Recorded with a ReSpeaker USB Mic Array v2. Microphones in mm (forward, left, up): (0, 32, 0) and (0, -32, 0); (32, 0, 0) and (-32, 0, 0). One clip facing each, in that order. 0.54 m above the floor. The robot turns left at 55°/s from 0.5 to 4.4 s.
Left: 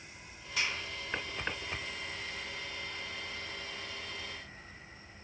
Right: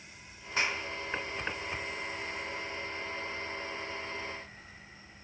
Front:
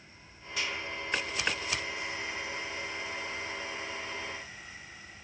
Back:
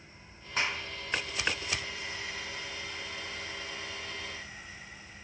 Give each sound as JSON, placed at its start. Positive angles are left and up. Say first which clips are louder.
{"t": 0.6, "sound": "a clap", "louder": "right 3 dB, back 3 dB", "azimuth_deg": -140, "distance_m": 1.7}